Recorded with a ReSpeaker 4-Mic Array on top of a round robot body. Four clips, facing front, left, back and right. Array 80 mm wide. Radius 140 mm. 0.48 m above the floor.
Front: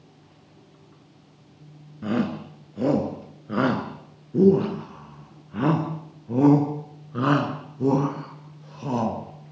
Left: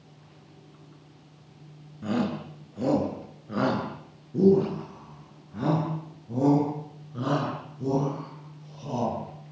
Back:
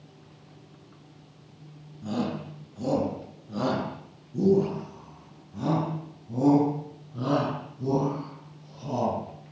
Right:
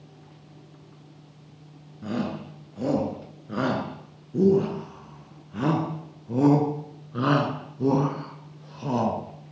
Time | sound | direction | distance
2.0 | a shout | 5° left | 7 m